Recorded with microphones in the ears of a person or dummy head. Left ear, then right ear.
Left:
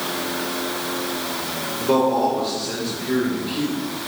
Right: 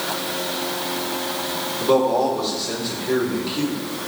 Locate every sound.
1.8 s a man speaking: 40° right (ahead or behind), 3 m